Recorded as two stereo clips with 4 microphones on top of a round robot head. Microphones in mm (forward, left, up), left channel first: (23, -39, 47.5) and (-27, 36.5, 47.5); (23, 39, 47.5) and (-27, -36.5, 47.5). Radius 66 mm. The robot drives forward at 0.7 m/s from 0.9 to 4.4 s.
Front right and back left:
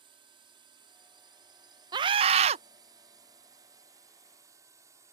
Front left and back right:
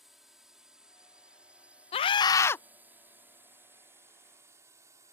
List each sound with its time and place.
0.0 s a drone: 150° left; by 5.1 s straight behind
1.9 s a scream: 75° left; by 2.6 s 130° left